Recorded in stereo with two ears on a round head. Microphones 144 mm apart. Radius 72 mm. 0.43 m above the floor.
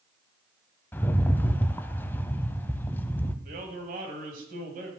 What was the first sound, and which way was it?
A rattle, 10° left (ahead or behind).